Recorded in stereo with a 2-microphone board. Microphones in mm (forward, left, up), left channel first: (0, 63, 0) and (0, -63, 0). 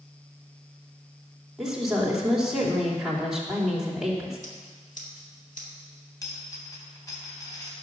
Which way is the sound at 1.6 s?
5° right (ahead or behind).